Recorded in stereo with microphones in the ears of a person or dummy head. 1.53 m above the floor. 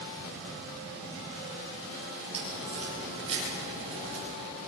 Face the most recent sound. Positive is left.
turn(degrees=-25)  # may be behind; listen again after turning